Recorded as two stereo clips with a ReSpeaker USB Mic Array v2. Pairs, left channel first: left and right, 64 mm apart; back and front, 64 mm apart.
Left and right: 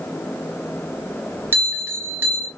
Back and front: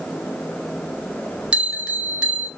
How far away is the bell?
About 0.7 m.